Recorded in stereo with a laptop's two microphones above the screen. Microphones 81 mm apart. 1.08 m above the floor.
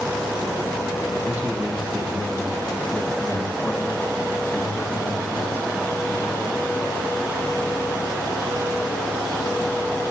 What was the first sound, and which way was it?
A man speaking, 25° right (ahead or behind).